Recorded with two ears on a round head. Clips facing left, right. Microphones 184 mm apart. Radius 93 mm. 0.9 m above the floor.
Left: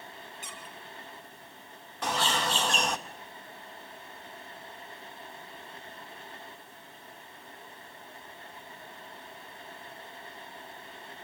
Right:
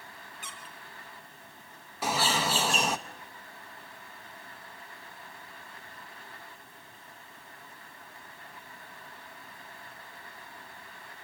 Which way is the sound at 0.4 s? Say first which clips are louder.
Left 2 dB; 40° left (ahead or behind).